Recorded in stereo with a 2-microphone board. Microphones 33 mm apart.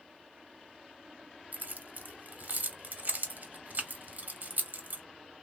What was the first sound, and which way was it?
Keys jangling, 55° right (ahead or behind).